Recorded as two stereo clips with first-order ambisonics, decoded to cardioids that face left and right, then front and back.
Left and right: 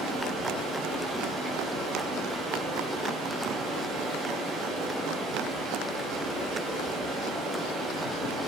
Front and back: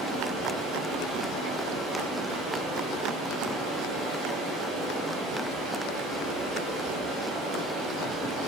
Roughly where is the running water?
Behind right.